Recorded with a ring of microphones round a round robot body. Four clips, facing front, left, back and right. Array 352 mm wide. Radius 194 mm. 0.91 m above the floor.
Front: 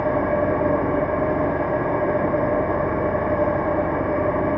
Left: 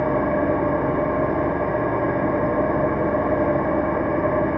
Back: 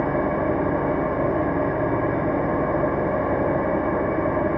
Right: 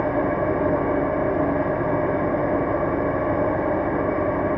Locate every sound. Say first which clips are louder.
0.0 s an engine running: left 1 dB, front 2 dB; 40° left, 4 m